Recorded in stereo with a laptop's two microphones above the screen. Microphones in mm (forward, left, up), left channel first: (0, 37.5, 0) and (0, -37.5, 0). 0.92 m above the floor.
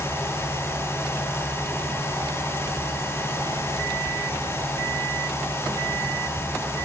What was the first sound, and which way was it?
A fan, 35° left (ahead or behind).